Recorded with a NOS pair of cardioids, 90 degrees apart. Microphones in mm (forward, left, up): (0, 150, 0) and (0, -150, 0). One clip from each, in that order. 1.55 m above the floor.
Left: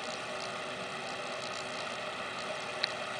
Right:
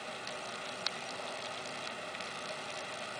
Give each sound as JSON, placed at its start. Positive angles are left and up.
{"t": 0.0, "sound": "a fan", "azimuth_deg": 30}